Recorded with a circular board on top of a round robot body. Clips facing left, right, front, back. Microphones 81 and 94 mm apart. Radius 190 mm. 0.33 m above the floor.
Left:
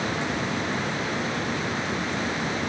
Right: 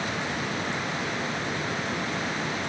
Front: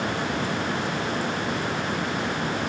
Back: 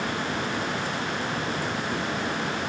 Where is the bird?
I don't hear a bird.